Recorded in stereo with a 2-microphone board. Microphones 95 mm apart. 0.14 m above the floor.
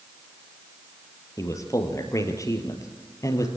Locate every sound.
1.4 s a man speaking: 35° left (ahead or behind), 3.5 m